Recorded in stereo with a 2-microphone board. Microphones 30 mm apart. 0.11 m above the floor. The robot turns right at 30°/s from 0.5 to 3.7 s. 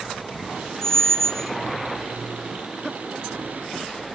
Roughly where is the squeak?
Centre.